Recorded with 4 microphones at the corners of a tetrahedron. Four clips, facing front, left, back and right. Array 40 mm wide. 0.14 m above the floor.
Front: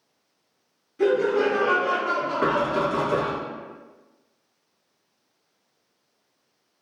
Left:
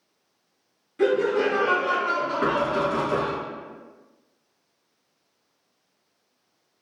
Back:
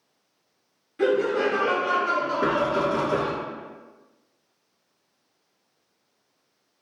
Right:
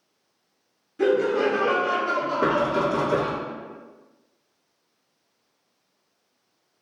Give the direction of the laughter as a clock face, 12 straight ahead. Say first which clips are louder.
Even, front 1 dB; 7 o'clock.